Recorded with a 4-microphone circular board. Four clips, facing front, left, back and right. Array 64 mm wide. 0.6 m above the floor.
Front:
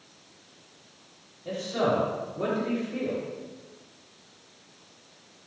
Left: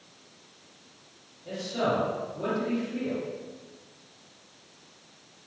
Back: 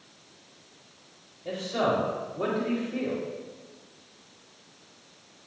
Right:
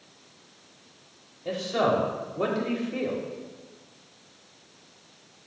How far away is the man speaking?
About 2.5 m.